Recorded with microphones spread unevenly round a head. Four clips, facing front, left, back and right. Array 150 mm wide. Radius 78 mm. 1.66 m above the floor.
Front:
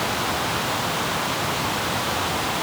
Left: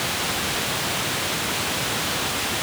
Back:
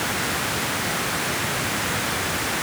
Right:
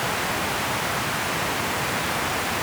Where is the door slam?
No door slam in this recording.